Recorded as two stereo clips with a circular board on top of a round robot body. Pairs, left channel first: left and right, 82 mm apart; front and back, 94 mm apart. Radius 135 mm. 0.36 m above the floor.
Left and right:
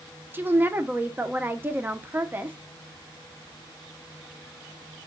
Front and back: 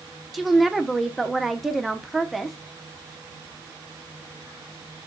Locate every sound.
0.3 s a woman speaking: 95° right, 0.8 m